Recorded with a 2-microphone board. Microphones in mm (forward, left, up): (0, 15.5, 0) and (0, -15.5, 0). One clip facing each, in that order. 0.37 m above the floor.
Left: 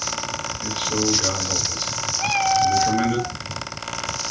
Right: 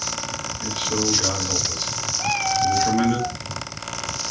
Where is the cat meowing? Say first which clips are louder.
Left 3 dB; 35° left (ahead or behind), 0.8 m.